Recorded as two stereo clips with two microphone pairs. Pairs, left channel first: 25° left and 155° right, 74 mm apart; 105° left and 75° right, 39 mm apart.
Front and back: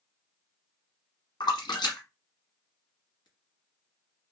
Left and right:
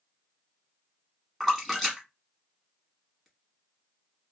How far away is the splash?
About 1.5 m.